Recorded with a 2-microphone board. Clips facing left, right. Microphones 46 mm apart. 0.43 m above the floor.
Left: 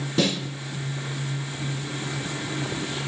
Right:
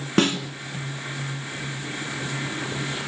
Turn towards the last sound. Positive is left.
turn(degrees=-55)  # may be behind; listen again after turning